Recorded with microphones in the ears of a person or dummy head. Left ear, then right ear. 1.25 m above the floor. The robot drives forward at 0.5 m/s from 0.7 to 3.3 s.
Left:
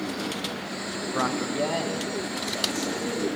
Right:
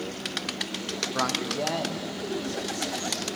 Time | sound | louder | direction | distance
1.1 | a man speaking | left 2 dB | 5° left (ahead or behind) | 0.5 m